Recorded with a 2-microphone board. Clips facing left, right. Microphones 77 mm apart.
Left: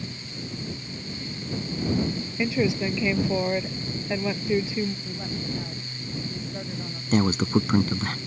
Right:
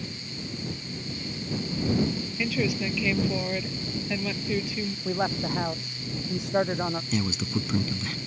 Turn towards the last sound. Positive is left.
turn(degrees=45)  # may be behind; listen again after turning